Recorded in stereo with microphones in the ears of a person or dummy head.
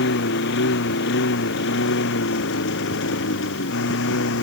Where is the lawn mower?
65° left (ahead or behind); by 4.4 s 70° left (ahead or behind).